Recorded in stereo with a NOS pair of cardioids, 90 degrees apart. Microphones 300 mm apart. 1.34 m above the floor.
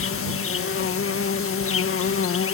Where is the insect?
50° left.